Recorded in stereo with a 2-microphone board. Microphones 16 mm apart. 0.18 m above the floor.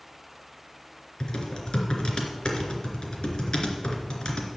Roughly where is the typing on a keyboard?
Left.